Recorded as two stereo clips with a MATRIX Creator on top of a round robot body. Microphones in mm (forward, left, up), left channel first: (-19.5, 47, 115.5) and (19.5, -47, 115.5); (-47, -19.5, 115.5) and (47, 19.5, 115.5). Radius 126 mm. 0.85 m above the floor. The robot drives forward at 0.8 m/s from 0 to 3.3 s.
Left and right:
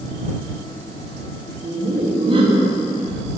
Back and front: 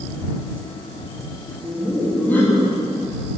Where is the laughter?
70° right, 2 m; by 2.8 s 100° right, 1.9 m.